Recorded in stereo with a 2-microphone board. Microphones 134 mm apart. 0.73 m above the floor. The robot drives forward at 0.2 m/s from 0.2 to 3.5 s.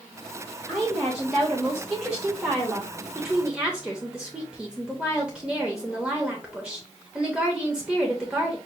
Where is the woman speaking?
5° right (ahead or behind), 1.0 m.